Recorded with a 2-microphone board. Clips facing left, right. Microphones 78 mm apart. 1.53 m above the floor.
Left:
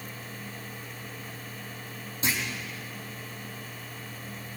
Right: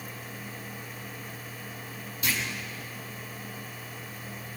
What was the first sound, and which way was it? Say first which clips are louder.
A clunk: left 1 dB; 30° left (ahead or behind).